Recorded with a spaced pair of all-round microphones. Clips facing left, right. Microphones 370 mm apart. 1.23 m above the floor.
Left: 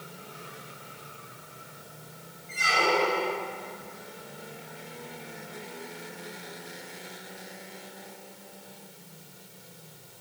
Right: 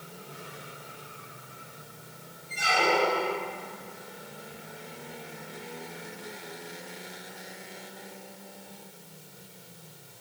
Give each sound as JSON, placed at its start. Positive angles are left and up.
{"t": 2.5, "sound": "a squeak", "side_deg": 5, "distance_m": 1.8}